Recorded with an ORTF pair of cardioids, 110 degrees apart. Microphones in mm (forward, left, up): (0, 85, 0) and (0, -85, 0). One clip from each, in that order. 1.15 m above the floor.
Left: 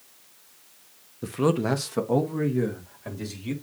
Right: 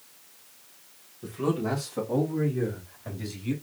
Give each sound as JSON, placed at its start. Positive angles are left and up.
{"t": 1.2, "sound": "a man speaking", "azimuth_deg": 65, "distance_m": 1.0}